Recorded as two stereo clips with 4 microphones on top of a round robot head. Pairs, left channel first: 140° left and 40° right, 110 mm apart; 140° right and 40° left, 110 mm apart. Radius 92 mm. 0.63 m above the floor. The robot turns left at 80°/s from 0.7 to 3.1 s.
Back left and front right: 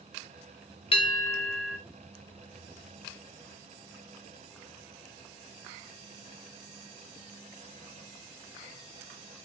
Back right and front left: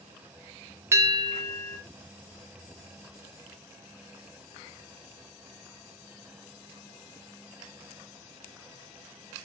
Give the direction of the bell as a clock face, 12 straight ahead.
8 o'clock.